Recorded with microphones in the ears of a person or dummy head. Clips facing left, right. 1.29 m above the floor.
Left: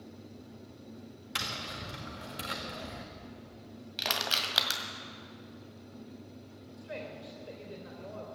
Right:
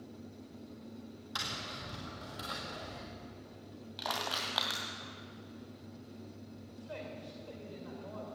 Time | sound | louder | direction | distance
1.4 | tapping | left 4 dB | 35° left (ahead or behind) | 1.7 m
4.0 | crushing | left 2 dB | 35° left (ahead or behind) | 1.8 m
6.8 | a woman speaking | left 3 dB | 25° left (ahead or behind) | 3 m